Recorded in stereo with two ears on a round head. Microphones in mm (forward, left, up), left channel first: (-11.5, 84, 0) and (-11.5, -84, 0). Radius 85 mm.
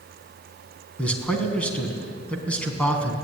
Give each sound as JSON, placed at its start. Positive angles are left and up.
{"t": 1.0, "sound": "a man speaking", "side_deg": 10, "distance_m": 4.0}